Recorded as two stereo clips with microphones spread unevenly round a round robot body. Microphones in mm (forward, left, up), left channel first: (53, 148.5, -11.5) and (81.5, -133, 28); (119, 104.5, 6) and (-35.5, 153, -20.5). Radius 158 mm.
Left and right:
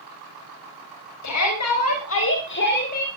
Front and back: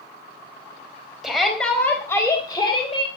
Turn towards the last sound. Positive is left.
turn(degrees=35)